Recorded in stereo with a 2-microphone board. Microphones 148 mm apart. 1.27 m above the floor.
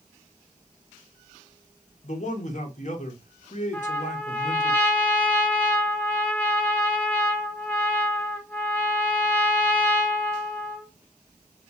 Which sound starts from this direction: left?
A man speaking, at 2.0 s.